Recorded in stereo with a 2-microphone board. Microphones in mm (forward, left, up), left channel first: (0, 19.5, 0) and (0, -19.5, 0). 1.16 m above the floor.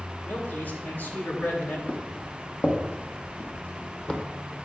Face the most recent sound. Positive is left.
turn(degrees=25)  # may be behind; listen again after turning